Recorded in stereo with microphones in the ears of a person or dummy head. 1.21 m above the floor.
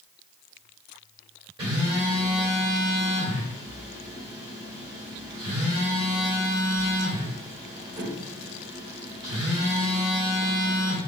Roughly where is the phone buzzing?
Right.